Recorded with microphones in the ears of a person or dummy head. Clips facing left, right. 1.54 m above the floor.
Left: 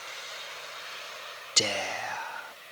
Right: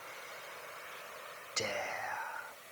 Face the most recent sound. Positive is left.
turn(degrees=45)  # may be behind; listen again after turning